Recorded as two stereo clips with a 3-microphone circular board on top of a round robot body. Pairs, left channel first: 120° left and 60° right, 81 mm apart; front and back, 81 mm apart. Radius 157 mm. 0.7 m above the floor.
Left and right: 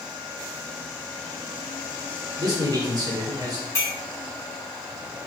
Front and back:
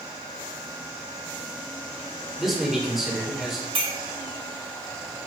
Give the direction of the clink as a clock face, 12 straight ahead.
6 o'clock.